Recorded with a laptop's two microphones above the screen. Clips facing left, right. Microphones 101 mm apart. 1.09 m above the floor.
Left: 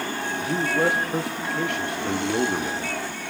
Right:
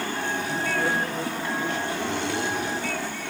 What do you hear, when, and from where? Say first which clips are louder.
0.4 s a man speaking: left 6 dB; 70° left (ahead or behind), 1.8 m